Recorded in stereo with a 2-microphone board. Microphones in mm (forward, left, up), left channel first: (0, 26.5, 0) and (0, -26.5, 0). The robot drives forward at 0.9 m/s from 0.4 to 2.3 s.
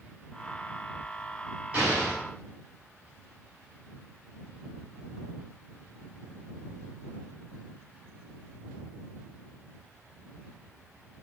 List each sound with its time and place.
1.7 s an explosion: 30° right (ahead or behind), 5.5 m; by 2.2 s 25° right (ahead or behind), 5.5 m